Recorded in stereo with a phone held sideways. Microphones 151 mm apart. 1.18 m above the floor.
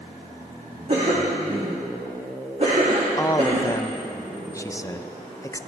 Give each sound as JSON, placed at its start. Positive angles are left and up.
{"t": 0.9, "sound": "a cough", "side_deg": -50, "distance_m": 2.5}
{"t": 3.2, "sound": "a man speaking", "side_deg": 20, "distance_m": 0.5}